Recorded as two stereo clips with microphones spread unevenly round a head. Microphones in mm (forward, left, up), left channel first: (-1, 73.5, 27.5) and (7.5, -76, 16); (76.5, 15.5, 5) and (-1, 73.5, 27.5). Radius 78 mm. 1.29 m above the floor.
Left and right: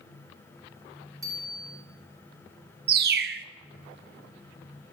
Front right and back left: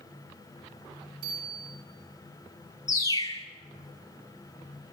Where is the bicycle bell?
155° right, 8.5 m.